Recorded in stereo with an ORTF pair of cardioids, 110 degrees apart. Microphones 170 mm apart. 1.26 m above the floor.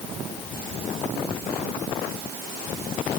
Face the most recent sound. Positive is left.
No sound to turn to.